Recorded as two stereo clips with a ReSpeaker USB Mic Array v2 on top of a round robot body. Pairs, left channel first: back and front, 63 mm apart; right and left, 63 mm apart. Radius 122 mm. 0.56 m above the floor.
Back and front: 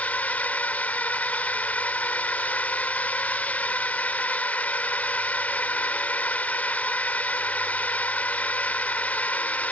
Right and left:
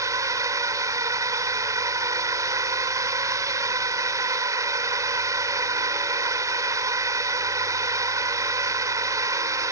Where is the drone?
115° left.